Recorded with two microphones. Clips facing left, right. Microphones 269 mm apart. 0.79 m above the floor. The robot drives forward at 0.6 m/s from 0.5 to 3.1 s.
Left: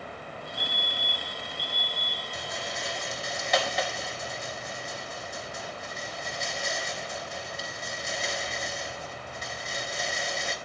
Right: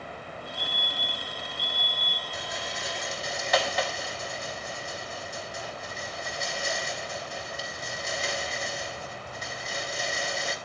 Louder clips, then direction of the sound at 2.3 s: Left 1 dB; centre (ahead or behind).